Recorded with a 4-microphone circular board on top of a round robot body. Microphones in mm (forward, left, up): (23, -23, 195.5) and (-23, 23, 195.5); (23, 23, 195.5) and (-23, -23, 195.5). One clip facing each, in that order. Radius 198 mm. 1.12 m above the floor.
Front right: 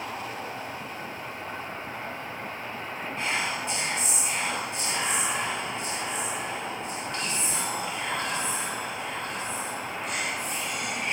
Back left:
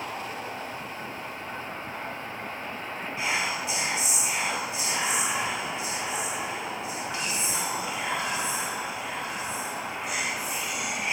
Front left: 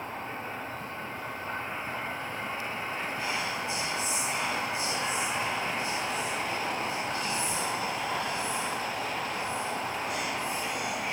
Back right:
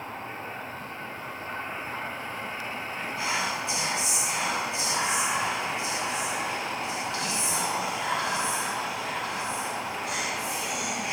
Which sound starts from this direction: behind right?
Whispering, at 3.2 s.